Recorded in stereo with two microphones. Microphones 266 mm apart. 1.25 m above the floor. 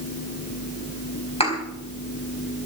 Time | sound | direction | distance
1.4 | a thud | 20° left (ahead or behind) | 4.5 m